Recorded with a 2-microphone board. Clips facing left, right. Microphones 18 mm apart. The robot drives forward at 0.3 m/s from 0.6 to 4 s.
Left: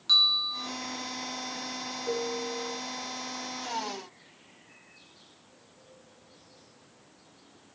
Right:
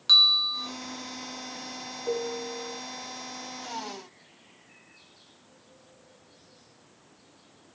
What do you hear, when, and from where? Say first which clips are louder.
0.1 s a bell: right 4 dB; 25° right (ahead or behind), 0.7 m
2.0 s a piano: right 1 dB; 5° right (ahead or behind), 1.0 m